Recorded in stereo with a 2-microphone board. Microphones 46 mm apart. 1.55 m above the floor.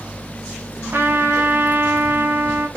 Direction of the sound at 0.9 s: 50° right (ahead or behind).